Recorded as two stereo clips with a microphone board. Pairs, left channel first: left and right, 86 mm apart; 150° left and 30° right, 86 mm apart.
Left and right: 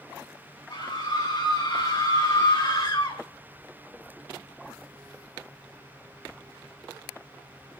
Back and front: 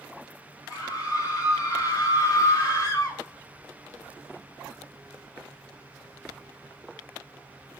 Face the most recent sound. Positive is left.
turn(degrees=105)